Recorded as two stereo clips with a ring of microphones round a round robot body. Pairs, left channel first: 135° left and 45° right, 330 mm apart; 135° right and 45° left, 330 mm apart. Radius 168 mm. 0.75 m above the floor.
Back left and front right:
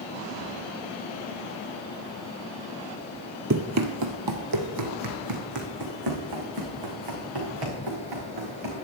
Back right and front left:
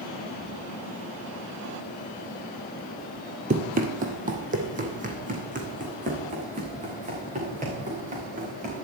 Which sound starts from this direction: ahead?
Running footsteps, at 3.5 s.